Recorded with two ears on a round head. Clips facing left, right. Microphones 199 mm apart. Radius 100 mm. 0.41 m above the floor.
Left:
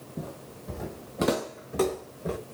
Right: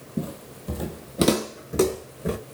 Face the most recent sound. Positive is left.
turn(degrees=-30)  # may be behind; listen again after turning